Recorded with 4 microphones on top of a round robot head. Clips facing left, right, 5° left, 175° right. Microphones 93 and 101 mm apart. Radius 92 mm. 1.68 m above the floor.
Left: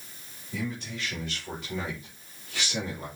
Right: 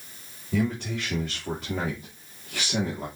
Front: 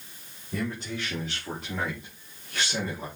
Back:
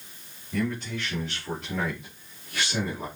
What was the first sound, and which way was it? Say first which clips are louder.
A man speaking: right 8 dB, back 3 dB; 70° right.